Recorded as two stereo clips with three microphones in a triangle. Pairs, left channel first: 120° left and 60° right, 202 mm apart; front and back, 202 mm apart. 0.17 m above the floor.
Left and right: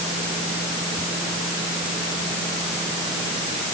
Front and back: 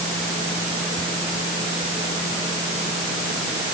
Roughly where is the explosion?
No explosion in this recording.